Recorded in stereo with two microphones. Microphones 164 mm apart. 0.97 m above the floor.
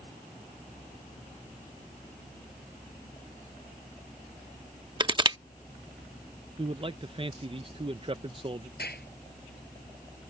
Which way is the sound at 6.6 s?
35° right (ahead or behind).